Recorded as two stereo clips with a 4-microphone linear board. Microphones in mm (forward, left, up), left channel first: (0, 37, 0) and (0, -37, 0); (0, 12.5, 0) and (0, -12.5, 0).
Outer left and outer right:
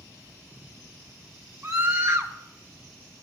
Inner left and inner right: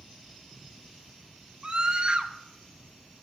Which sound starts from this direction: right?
A scream, at 1.6 s.